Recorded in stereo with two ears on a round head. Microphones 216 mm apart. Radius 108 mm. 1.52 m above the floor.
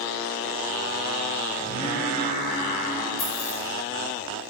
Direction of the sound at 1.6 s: 25° left (ahead or behind).